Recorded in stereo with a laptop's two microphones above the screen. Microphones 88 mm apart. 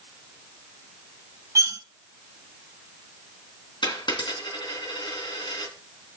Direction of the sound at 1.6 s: 40° right (ahead or behind).